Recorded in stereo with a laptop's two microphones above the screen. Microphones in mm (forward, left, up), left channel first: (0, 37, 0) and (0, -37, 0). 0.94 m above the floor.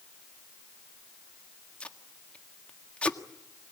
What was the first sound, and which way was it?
Tape being pulled, 15° left (ahead or behind).